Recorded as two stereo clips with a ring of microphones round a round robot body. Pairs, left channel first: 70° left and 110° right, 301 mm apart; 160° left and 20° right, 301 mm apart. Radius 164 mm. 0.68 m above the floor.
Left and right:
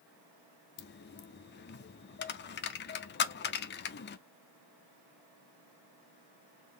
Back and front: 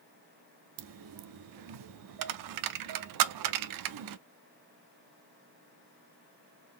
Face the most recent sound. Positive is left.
turn(degrees=10)